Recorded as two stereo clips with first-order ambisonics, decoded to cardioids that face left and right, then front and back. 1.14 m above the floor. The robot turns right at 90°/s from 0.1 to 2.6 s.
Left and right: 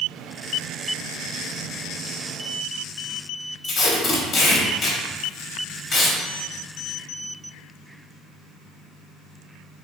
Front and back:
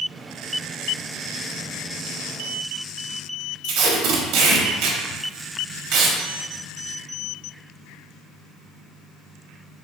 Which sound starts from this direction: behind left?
Tape being pulled, at 3.6 s.